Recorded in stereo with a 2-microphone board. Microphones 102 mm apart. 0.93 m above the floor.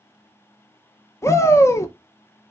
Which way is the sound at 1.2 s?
30° left (ahead or behind).